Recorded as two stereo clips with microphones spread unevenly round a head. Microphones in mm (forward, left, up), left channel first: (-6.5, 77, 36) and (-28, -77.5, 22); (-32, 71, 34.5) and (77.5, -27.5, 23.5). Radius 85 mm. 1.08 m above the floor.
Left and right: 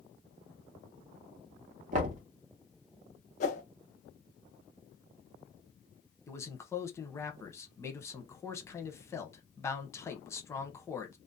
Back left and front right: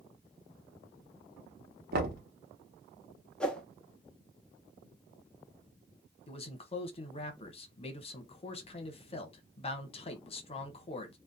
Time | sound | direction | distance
1.9 | knocking | 55° right | 0.9 m
3.4 | a whoosh | 60° left | 0.6 m
6.3 | a man speaking | 150° left | 0.8 m